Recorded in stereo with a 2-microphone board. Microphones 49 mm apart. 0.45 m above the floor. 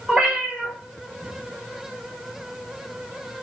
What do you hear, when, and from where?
0.1 s a cat meowing: 20° right (ahead or behind), 1.5 m